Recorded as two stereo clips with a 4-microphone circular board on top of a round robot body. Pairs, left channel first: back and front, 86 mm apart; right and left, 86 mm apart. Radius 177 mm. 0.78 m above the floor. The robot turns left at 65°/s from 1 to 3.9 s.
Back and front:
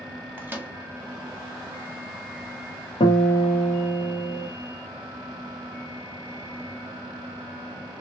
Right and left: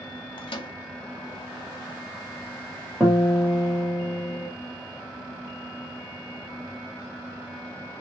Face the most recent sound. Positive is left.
turn(degrees=125)